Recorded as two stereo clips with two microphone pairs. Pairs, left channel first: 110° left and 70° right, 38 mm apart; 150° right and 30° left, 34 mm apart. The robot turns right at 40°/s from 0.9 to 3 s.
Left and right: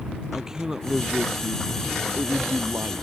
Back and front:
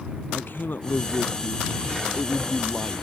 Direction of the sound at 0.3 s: 145° right.